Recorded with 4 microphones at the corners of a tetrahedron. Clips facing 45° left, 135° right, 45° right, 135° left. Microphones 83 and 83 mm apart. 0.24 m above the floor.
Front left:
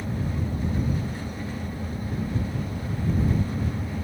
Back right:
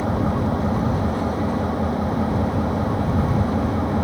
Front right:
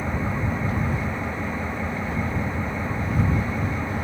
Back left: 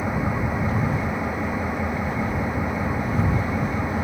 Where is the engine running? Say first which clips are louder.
Back right 9 dB, back left 2 dB; 150° right.